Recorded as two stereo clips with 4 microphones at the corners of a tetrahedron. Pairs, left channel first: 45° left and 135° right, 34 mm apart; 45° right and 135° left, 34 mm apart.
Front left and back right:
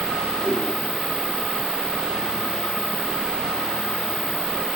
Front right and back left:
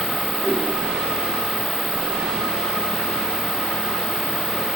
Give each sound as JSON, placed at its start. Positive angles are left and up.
{"t": 0.4, "sound": "a whoosh", "azimuth_deg": -145, "distance_m": 3.0}